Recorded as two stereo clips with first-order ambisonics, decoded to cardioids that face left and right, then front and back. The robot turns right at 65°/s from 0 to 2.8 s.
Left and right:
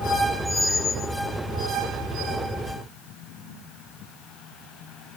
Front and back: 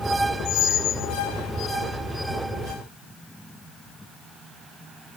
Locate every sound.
0.5 s a squeak: 10° right, 0.7 m; by 1.1 s 35° left, 0.7 m